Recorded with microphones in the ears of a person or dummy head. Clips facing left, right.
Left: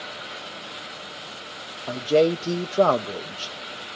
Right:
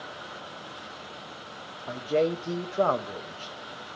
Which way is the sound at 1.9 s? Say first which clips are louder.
Left 6 dB; 50° left (ahead or behind).